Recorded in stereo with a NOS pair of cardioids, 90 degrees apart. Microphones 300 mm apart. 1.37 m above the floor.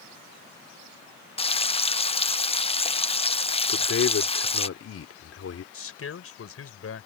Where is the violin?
No violin in this recording.